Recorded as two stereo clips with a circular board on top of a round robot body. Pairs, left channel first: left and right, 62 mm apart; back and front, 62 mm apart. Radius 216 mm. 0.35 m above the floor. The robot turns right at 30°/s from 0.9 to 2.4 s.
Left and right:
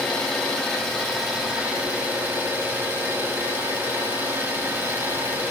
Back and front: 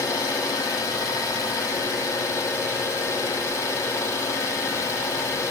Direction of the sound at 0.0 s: 170° left.